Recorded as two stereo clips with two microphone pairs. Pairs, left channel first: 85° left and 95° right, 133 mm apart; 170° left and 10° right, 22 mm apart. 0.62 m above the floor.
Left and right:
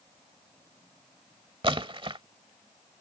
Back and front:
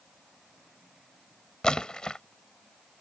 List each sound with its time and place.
1.6 s a splash: 140° right